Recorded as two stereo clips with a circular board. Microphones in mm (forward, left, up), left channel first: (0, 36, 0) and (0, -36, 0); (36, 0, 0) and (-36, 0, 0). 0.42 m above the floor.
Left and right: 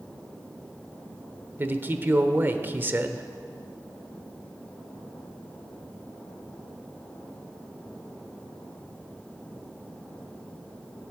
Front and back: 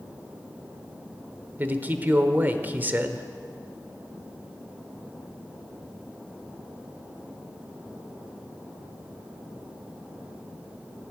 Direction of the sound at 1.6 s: 130° right.